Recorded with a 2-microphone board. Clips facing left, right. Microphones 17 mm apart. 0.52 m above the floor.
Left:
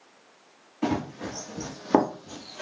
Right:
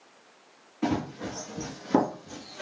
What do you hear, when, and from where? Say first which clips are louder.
0.8 s running footsteps: left 1 dB; 45° left (ahead or behind), 1.4 m; by 2.6 s 25° left (ahead or behind), 0.5 m